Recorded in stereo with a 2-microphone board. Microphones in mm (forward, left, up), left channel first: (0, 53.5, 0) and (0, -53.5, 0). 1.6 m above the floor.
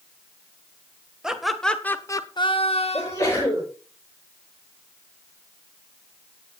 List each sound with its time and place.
1.2 s laughter: 5° right (ahead or behind), 1.7 m; by 3.4 s 85° left, 1.7 m
2.9 s a sneeze: 25° left (ahead or behind), 9.5 m